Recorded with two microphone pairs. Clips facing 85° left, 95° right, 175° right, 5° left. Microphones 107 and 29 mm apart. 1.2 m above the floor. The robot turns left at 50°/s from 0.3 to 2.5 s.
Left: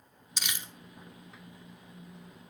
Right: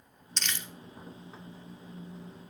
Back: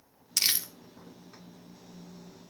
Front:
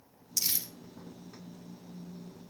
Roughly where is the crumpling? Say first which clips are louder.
Right 1 dB, back 6 dB; behind.